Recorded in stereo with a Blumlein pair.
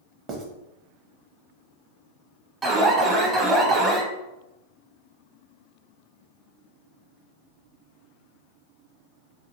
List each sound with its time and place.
0.3 s writing: 30° right, 0.8 m
2.6 s an alarm: 20° right, 0.7 m